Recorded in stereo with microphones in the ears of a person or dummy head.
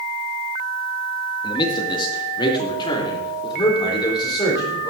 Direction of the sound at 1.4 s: 30° left (ahead or behind).